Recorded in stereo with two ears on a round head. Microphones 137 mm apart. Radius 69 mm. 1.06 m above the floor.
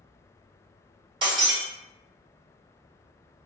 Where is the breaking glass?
30° right (ahead or behind), 1.6 m.